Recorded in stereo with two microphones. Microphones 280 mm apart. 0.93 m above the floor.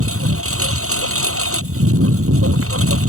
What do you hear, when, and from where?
0.0 s a lawn mower: 55° right (ahead or behind)